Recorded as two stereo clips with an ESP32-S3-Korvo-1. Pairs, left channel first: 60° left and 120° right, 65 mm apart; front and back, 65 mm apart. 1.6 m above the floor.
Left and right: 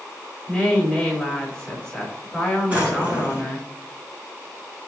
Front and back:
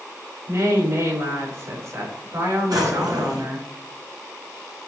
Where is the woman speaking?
145° left, 5 m.